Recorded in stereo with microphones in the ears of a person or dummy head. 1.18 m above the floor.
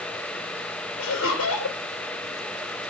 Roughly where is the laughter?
Left.